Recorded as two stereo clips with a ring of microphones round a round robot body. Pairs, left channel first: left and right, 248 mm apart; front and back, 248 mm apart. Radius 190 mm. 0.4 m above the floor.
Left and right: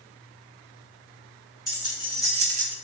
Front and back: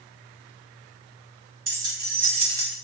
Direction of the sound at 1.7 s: 165° right.